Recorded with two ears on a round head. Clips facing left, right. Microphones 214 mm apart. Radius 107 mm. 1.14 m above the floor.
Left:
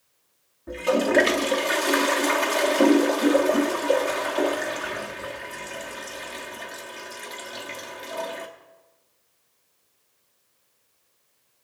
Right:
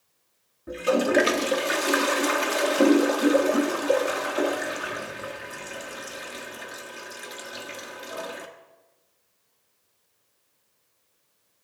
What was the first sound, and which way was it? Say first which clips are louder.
A toilet flushing: even; 10° right (ahead or behind).